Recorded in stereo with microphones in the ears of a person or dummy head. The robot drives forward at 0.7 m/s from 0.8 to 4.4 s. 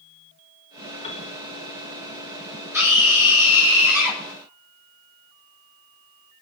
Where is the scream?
10° right (ahead or behind), 8.5 m; by 4.2 s 5° right (ahead or behind), 9.5 m.